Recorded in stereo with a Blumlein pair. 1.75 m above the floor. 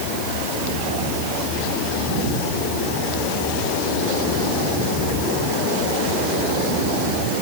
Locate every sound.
Only background noise.